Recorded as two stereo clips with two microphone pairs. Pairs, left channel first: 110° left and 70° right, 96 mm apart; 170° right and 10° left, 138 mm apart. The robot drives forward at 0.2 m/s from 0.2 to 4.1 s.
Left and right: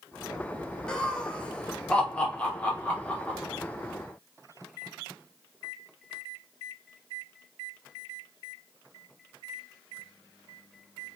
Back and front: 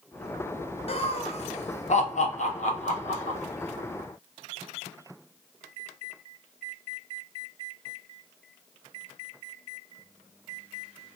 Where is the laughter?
Straight behind, 0.6 m.